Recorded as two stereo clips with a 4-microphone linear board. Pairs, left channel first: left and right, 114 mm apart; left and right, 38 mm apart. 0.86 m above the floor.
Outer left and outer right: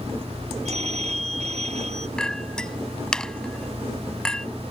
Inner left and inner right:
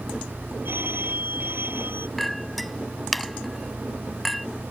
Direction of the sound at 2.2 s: 5° left (ahead or behind).